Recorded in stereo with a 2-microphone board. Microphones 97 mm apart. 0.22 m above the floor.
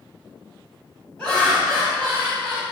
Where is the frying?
No frying in this recording.